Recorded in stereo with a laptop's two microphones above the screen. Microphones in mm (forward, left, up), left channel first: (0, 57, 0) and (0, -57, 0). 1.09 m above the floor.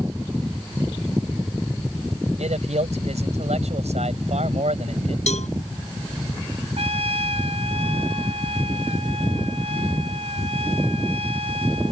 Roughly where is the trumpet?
Right.